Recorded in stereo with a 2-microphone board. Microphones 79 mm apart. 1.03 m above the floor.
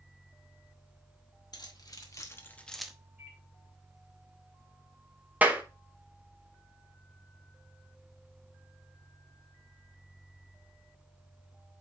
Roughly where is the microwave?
Centre.